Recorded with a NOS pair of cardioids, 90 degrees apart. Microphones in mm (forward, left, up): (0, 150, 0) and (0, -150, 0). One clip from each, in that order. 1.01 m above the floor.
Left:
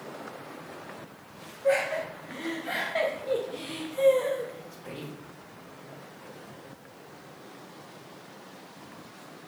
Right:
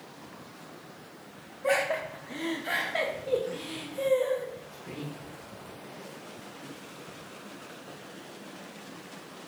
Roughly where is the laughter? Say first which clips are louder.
Left 1 dB; ahead right.